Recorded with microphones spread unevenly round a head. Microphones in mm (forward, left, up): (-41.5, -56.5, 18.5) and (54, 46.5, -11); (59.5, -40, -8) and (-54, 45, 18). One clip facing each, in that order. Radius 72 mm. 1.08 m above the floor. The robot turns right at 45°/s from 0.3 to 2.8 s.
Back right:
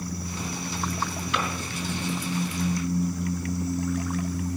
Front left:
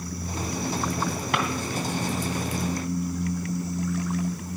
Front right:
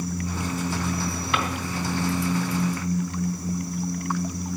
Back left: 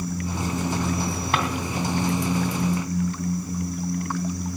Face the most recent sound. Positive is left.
turn(degrees=160)